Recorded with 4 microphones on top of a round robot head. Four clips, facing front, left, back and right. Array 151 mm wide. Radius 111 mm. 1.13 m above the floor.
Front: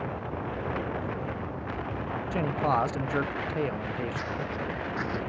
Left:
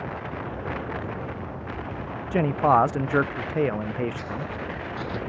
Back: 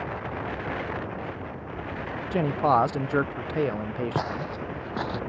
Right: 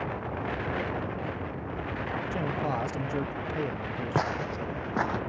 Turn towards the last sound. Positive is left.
turn(degrees=-115)